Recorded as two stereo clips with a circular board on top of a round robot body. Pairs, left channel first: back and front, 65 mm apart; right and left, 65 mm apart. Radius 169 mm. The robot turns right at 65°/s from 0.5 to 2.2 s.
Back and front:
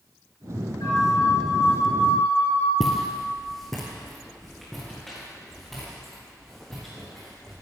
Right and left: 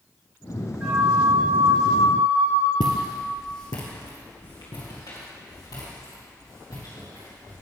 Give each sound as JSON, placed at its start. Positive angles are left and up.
{"t": 0.8, "sound": "a flute", "azimuth_deg": 160, "distance_m": 5.0}
{"t": 2.8, "sound": "footsteps", "azimuth_deg": -95, "distance_m": 0.8}